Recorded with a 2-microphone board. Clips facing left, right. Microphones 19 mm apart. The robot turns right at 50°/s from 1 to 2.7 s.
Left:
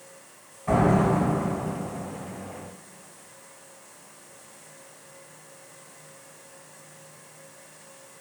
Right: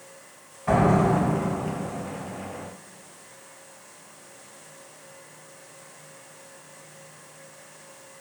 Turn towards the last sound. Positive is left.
turn(degrees=50)